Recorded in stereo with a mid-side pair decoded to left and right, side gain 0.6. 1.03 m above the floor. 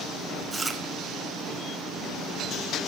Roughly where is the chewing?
Ahead.